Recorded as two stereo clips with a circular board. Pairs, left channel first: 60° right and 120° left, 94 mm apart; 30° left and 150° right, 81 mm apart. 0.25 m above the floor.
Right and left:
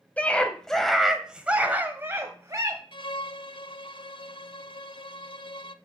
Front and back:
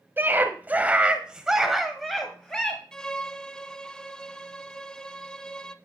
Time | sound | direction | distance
0.2 | a scream | 120° right | 1.4 m
2.9 | a violin | 50° right | 0.6 m